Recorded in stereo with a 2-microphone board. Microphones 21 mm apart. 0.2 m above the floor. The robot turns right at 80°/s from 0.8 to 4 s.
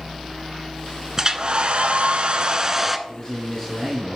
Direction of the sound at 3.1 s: 130° left.